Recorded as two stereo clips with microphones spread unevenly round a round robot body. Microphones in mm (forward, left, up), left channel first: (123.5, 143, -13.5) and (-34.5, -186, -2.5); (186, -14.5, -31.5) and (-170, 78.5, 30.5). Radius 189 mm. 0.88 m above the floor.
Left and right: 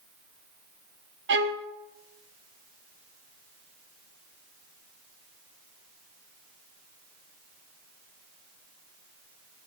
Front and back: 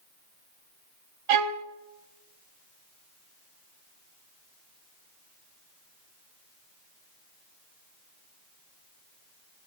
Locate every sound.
1.3 s a violin: straight behind, 0.8 m